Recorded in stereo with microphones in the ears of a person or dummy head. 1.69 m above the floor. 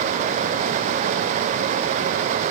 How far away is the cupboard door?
No cupboard door in this recording.